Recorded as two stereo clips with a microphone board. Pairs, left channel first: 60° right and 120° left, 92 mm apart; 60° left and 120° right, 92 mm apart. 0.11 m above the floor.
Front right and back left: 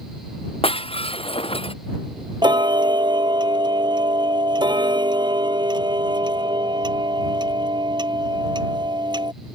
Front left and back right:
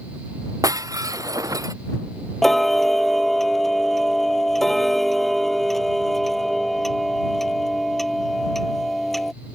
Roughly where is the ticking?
Behind left.